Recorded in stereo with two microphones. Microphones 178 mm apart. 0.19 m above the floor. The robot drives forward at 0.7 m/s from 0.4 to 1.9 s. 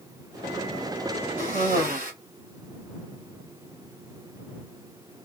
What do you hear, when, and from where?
1.4 s a cough: 50° right (ahead or behind), 1.6 m